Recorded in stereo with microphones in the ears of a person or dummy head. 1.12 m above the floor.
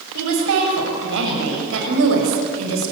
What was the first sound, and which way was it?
A woman speaking, 70° right (ahead or behind).